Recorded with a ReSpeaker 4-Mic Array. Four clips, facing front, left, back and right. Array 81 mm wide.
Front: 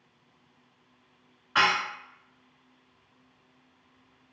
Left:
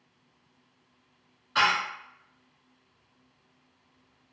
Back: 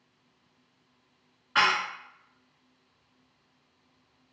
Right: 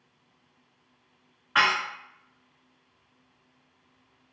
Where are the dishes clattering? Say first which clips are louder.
Right 1 dB, even; 85° right, 1.1 m.